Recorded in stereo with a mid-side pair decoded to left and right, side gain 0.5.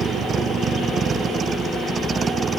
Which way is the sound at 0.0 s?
50° right.